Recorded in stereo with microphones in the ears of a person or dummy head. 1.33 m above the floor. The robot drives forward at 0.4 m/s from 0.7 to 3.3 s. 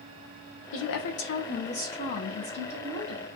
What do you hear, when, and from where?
0.7 s a woman speaking: 75° left (ahead or behind), 0.6 m; by 3.3 s 25° left (ahead or behind), 1.3 m